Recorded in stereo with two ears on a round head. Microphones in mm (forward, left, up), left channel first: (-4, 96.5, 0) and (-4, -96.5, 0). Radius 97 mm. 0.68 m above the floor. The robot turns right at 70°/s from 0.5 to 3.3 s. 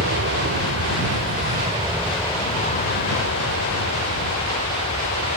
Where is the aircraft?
115° right; by 5.4 s 80° left.